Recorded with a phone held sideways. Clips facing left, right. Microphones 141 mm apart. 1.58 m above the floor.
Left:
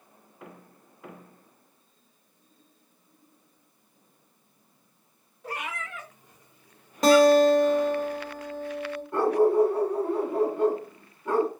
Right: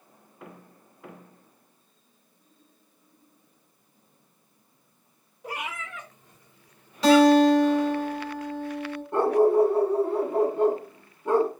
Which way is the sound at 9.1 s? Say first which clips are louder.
Right 1 dB; 25° right (ahead or behind).